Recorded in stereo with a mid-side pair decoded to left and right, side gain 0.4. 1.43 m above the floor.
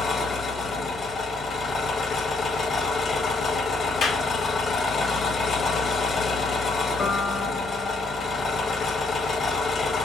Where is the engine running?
55° left, 1.6 m.